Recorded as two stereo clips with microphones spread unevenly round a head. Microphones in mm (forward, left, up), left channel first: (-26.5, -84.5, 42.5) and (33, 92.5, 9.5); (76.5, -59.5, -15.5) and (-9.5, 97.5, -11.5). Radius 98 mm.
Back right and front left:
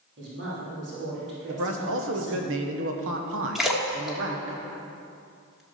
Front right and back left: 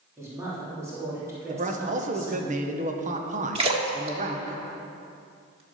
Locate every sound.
0.2 s a woman speaking: 45° left, 3.5 m
1.5 s a man speaking: 70° left, 1.4 m
3.5 s a splash: 170° left, 1.4 m